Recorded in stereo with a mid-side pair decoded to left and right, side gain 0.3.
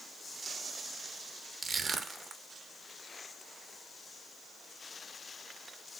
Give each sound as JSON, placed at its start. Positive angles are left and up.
{"t": 1.6, "sound": "crushing", "azimuth_deg": -60, "distance_m": 0.9}